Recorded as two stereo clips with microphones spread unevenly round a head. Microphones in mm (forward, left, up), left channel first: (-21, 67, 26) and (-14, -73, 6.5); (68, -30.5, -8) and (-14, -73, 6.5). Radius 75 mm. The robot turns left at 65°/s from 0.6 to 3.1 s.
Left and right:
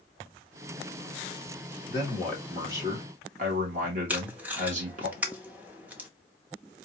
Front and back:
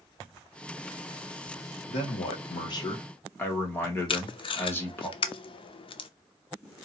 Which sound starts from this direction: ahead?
Tape being pulled, at 4.1 s.